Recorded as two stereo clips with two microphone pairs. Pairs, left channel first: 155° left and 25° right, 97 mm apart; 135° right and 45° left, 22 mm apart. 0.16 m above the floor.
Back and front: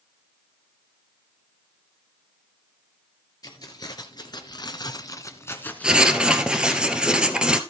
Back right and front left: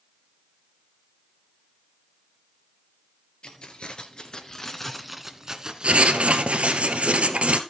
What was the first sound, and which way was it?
Keys jangling, 160° right.